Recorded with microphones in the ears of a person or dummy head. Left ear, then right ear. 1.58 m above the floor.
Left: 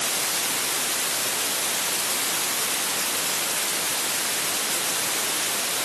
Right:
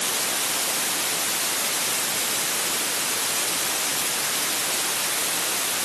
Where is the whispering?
No whispering in this recording.